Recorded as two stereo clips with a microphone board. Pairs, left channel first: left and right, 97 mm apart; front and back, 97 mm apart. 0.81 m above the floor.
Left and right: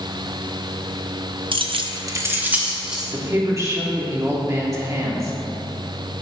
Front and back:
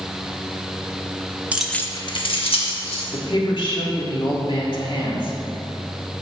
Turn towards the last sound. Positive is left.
turn(degrees=-30)